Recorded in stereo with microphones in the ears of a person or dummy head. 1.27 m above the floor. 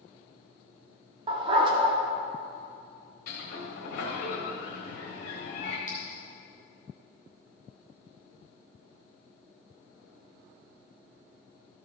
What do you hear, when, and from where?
1.3 s a dog barking: 25° right (ahead or behind), 1.0 m
3.3 s a sliding door: 55° left (ahead or behind), 1.8 m
5.9 s a clink: 15° left (ahead or behind), 1.0 m